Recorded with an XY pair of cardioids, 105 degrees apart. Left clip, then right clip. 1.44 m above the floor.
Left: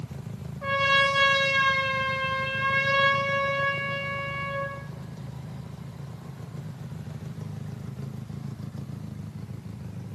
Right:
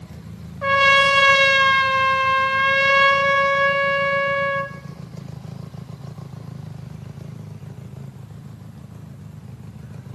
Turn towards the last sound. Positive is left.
turn(degrees=-55)